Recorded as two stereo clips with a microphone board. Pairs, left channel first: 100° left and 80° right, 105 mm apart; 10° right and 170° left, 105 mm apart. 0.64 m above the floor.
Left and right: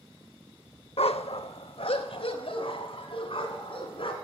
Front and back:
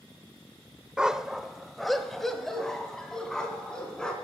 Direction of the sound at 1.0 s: 90° left.